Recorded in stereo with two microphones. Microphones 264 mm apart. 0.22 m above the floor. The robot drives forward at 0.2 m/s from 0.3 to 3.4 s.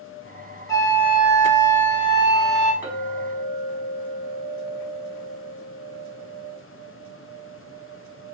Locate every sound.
0.7 s a flute: 15° left (ahead or behind), 1.1 m; by 2.7 s 10° left (ahead or behind), 1.5 m
2.8 s a clink: 10° right (ahead or behind), 1.1 m